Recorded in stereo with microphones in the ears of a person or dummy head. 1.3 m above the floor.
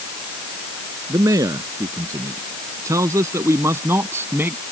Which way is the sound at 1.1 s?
20° right (ahead or behind).